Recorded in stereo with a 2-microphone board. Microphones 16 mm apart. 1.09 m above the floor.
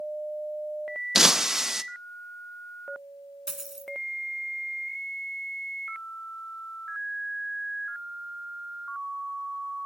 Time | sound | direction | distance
1.1 | breaking glass | 25° right (ahead or behind) | 0.6 m
3.5 | a dropped coin | 25° right (ahead or behind) | 1.8 m